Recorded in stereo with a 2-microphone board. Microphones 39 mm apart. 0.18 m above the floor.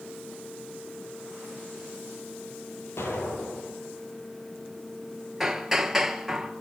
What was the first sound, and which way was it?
An explosion, 75° left (ahead or behind).